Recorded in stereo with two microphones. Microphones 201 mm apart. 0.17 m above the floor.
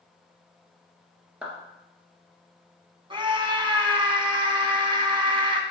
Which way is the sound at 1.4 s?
5° right (ahead or behind).